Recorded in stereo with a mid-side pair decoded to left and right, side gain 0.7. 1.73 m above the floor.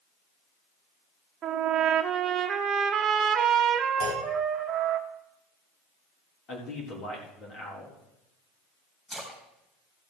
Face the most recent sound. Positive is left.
turn(degrees=25)